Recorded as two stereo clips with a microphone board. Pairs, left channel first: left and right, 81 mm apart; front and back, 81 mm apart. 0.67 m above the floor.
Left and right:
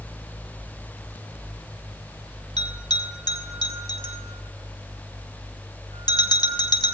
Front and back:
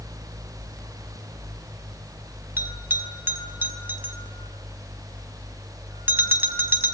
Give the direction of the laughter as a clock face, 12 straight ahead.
I don't hear laughter.